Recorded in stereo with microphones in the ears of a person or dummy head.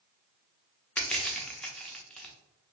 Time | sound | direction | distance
1.0 | crushing | 5° left (ahead or behind) | 0.7 m